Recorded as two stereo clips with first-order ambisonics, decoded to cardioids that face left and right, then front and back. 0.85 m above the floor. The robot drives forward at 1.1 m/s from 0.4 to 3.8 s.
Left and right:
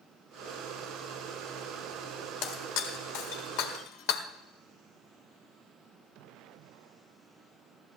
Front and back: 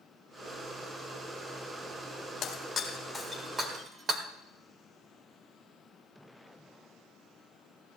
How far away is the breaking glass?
About 1.6 m.